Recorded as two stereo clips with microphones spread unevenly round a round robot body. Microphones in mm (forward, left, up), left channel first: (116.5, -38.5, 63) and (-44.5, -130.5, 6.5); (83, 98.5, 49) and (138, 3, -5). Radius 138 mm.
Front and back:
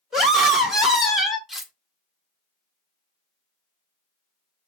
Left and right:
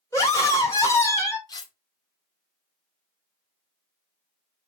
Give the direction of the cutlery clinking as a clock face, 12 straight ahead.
5 o'clock.